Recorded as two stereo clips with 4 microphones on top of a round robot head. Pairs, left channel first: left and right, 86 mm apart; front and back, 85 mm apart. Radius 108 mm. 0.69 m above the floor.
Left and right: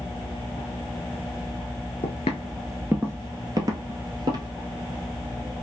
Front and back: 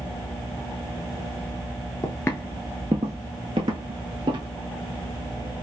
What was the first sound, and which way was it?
Footsteps, 50° left.